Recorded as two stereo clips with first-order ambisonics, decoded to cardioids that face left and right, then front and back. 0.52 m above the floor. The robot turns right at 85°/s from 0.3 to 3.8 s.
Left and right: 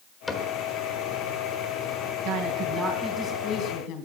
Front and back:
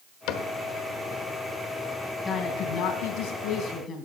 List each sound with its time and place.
0.3 s a cupboard door: 10° left, 1.3 m; by 0.5 s 25° left, 1.3 m
2.2 s a woman speaking: 70° right, 3.5 m; by 4.1 s 60° left, 3.5 m